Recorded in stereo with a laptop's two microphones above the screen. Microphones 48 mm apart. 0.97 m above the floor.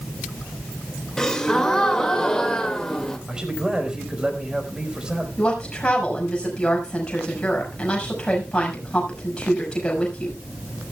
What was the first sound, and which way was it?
A gasp, 15° left (ahead or behind).